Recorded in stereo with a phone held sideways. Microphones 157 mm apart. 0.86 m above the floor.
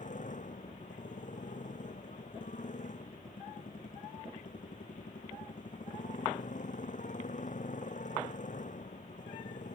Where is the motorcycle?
60° left (ahead or behind).